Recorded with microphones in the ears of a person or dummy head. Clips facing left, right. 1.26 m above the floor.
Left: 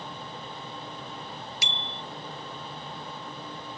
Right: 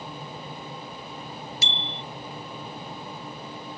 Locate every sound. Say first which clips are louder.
1.6 s a bicycle bell: right 2 dB; 15° left (ahead or behind)